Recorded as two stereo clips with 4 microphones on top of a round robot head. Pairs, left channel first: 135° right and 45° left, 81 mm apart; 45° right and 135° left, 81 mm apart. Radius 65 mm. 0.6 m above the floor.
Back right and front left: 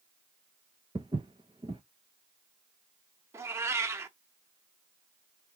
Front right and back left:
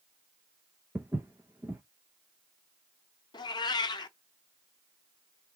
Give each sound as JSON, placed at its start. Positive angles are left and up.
{"t": 0.9, "sound": "footsteps", "azimuth_deg": 70, "distance_m": 0.7}
{"t": 3.3, "sound": "a cat meowing", "azimuth_deg": -10, "distance_m": 0.7}